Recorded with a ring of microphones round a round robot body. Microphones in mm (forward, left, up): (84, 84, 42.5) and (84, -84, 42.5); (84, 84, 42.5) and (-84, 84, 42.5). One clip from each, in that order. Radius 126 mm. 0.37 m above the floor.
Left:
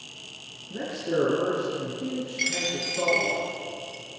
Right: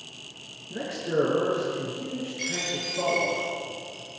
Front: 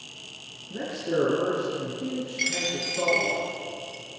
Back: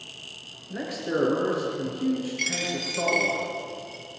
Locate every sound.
0.7 s a man speaking: 165° right, 6 m
2.4 s a dropped coin: 80° left, 3.5 m